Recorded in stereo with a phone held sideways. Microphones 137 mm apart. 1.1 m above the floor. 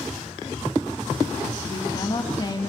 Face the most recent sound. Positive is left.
turn(degrees=30)  # may be behind; listen again after turning